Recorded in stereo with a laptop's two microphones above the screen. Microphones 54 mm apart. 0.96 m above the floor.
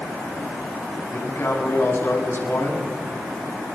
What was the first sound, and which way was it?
A man speaking, 55° left (ahead or behind).